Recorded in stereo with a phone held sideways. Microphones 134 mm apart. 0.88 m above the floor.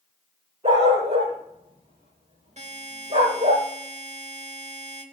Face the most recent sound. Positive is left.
turn(degrees=-60)  # may be behind; listen again after turning